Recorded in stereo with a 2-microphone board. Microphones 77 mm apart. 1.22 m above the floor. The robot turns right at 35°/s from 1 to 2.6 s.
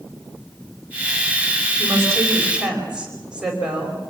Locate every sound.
1.8 s a woman speaking: 40° right (ahead or behind), 5 m; by 4.0 s 10° right (ahead or behind), 5 m